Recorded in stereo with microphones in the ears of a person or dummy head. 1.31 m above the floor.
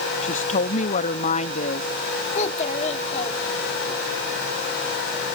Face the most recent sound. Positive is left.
turn(degrees=35)  # may be behind; listen again after turning